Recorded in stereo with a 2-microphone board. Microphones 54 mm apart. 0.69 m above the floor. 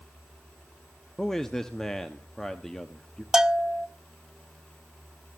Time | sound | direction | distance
1.2 | a man speaking | 5° left (ahead or behind) | 0.9 m
3.3 | a bell | 10° right (ahead or behind) | 0.6 m